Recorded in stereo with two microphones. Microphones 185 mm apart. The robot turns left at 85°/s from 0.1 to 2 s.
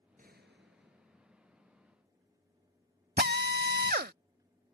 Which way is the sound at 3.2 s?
60° right (ahead or behind).